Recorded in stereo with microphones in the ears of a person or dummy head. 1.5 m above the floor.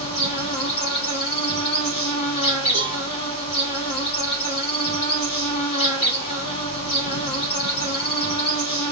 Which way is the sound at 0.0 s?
35° left (ahead or behind).